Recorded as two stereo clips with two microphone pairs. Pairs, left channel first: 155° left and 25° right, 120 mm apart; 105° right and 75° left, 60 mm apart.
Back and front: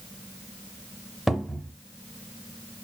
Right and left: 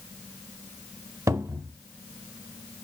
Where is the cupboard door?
60° left, 0.5 m.